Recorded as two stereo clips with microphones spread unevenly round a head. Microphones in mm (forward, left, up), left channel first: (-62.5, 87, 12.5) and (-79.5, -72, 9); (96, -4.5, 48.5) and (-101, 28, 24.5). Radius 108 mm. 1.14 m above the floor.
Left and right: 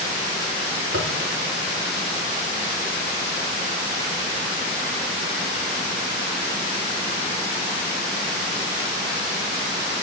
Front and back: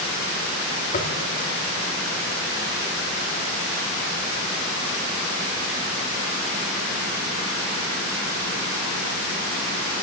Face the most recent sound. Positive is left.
turn(degrees=-60)